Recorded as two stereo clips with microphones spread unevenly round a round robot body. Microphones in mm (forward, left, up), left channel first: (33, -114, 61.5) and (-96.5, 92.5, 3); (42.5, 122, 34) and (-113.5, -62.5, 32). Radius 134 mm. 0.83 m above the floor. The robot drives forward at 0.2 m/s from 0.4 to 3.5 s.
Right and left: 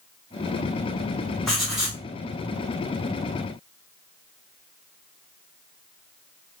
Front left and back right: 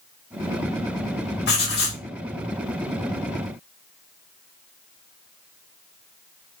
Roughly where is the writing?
Ahead left.